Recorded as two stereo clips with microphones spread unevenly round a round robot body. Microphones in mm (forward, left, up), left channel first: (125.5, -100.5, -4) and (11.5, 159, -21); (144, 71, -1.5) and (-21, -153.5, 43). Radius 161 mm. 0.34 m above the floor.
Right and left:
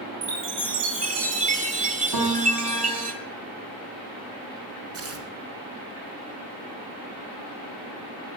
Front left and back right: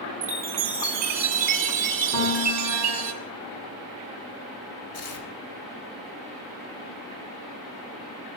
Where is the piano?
125° left, 3.5 m.